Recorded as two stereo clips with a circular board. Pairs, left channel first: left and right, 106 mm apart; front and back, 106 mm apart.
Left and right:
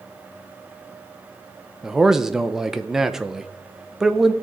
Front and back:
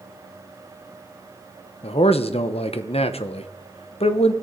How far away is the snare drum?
I don't hear a snare drum.